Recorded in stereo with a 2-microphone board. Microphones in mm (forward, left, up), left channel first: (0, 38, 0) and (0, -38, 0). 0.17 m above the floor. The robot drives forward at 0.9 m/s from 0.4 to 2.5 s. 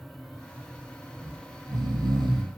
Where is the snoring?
60° right (ahead or behind), 3.5 m; by 2.6 s 75° right (ahead or behind), 3.5 m.